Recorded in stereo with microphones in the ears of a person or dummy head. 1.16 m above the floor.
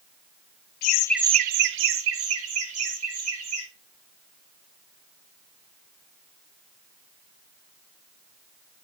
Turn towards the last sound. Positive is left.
turn(degrees=-85)